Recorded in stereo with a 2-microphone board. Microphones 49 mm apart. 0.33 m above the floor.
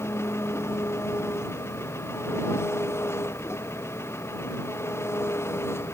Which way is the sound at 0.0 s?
65° left (ahead or behind).